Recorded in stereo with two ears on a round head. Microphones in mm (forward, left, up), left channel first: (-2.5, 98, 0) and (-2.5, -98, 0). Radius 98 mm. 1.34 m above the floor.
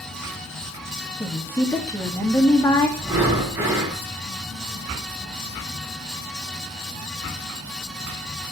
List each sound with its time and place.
1.2 s a woman speaking: 10° left (ahead or behind), 2.5 m
3.0 s breathing: 10° right (ahead or behind), 4.5 m